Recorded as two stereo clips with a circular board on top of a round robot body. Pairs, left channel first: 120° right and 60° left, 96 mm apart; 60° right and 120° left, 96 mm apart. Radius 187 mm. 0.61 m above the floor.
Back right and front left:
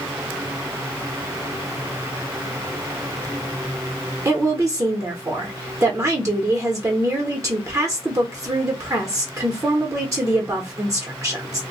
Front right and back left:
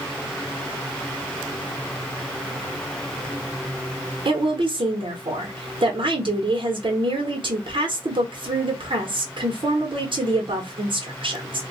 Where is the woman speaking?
110° left, 1.0 m.